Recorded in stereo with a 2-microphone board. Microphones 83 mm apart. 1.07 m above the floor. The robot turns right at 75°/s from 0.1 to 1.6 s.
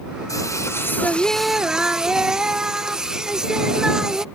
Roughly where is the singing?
Left.